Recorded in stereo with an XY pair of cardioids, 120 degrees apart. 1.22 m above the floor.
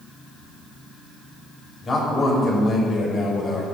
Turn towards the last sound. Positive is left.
turn(degrees=40)